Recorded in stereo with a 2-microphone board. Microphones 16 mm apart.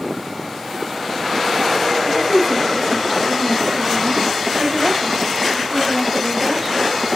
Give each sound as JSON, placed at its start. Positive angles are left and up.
{"t": 2.0, "sound": "a woman speaking", "side_deg": -10, "distance_m": 1.7}